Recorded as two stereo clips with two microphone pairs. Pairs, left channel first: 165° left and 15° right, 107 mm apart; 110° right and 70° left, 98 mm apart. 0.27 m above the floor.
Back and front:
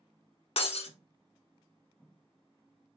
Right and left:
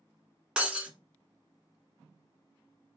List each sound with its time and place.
0.6 s breaking glass: 145° left, 0.9 m